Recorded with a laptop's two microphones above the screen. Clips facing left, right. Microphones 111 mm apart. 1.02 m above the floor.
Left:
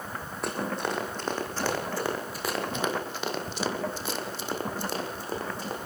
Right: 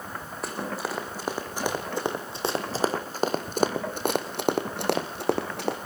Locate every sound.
0.4 s running footsteps: centre (ahead or behind), 5 m; by 5.8 s 75° right (ahead or behind), 4 m